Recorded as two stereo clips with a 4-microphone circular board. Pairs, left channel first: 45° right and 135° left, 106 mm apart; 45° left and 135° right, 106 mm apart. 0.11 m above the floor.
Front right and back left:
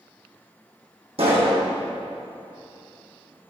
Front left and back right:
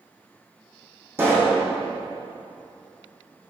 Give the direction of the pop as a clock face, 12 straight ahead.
7 o'clock.